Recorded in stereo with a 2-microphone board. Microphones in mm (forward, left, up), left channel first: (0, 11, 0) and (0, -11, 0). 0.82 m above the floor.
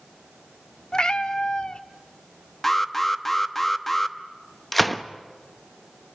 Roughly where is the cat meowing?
Left.